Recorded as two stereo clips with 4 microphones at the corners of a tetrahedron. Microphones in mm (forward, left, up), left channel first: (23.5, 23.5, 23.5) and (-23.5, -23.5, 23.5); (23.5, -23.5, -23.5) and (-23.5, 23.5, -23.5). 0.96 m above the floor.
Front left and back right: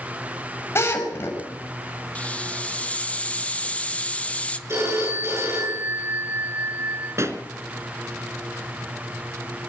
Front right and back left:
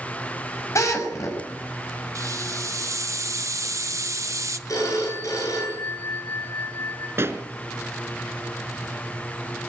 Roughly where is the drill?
Ahead.